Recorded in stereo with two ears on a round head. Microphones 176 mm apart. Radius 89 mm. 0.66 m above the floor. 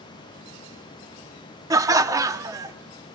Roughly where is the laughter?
Centre.